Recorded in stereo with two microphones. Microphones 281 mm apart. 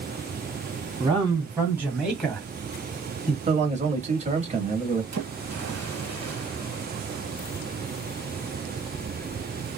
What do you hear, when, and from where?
1.0 s a man speaking: 15° right (ahead or behind), 1.7 m; by 3.4 s 25° left (ahead or behind), 1.3 m
3.5 s a man speaking: 25° right (ahead or behind), 1.0 m
5.1 s a splash: 60° right (ahead or behind), 1.4 m